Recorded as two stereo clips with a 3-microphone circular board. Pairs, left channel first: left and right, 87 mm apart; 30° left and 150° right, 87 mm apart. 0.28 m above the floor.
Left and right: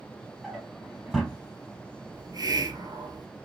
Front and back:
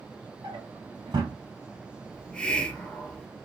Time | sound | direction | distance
0.4 | a drawer | straight behind | 1.8 m
2.1 | a hiss | 50° right | 1.2 m